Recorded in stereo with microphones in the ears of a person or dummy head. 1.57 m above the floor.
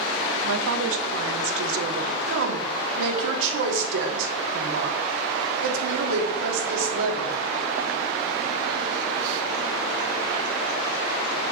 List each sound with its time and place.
0.4 s a woman speaking: 65° right (ahead or behind), 0.7 m
2.3 s a woman speaking: 75° right (ahead or behind), 1.6 m